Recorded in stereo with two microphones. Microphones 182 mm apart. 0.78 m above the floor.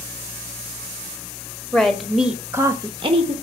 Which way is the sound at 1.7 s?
5° left (ahead or behind).